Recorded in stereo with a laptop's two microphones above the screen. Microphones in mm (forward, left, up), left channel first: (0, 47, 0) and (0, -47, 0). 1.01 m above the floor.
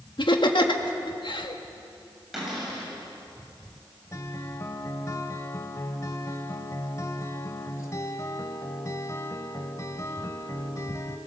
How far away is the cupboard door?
About 7 m.